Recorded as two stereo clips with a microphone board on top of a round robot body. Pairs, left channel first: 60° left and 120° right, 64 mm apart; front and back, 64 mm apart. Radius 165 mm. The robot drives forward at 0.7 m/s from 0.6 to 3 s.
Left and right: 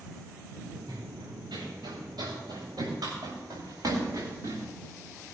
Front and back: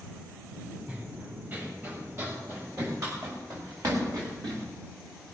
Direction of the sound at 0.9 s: 115° right.